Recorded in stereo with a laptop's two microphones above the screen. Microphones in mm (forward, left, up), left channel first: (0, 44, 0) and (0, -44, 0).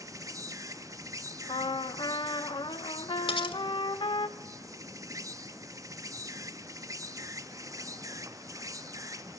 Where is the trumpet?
65° left (ahead or behind), 0.8 m.